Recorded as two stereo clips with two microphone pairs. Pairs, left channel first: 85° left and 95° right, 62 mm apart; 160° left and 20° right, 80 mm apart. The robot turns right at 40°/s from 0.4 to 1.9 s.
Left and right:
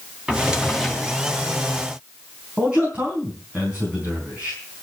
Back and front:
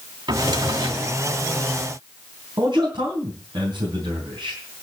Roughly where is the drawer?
Ahead right.